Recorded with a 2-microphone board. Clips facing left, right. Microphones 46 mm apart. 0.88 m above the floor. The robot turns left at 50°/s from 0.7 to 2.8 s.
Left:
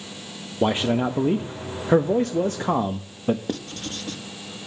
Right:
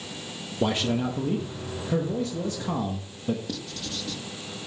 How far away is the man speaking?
About 0.7 m.